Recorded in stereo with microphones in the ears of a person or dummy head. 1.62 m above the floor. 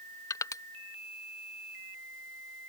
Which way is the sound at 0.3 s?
20° left (ahead or behind).